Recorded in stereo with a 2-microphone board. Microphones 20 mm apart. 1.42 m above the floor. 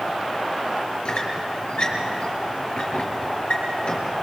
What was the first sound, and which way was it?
A squeak, 60° left (ahead or behind).